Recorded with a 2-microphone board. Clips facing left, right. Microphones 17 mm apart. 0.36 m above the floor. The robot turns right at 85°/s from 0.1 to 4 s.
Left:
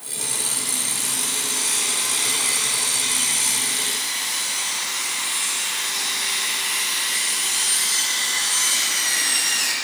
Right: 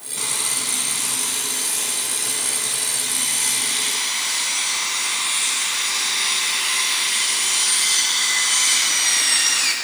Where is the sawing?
100° right, 1.8 m; by 9.7 s 135° right, 1.8 m.